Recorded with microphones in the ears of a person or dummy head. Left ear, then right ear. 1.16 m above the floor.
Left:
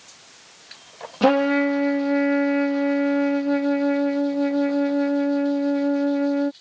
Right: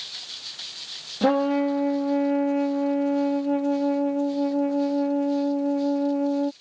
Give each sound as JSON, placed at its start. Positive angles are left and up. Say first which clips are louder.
{"t": 1.2, "sound": "a trumpet", "louder": "left 3 dB", "side_deg": 40}